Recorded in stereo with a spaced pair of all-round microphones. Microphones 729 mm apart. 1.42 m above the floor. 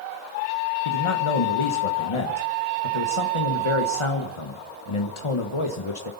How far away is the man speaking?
About 1.3 m.